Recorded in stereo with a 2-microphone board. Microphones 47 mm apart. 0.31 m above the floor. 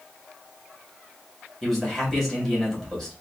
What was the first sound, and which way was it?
A man speaking, 5° left (ahead or behind).